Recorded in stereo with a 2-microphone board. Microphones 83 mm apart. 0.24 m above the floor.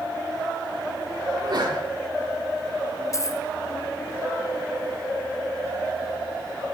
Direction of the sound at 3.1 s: 40° left (ahead or behind).